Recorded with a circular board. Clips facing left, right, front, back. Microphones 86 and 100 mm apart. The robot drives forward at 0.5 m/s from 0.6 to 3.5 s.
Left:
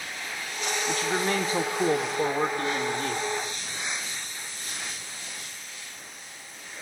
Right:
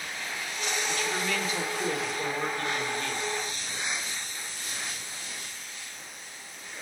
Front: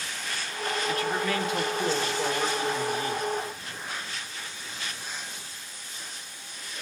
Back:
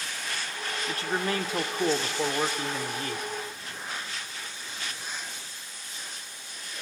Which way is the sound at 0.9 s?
125° left.